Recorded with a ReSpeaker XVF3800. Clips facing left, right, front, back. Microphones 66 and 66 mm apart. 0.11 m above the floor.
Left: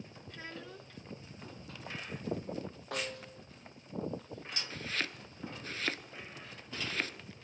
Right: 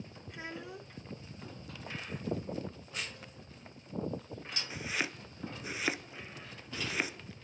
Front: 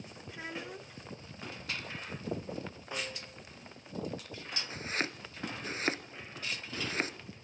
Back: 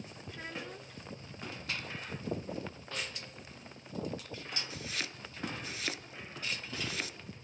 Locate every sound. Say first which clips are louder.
0.3 s a child speaking: right 3 dB, front 2 dB; 55° right, 0.9 m
2.9 s a snare drum: left 4 dB, front 4 dB; 75° left, 2 m
4.7 s chopping: right 2 dB, front 5 dB; 20° right, 1.2 m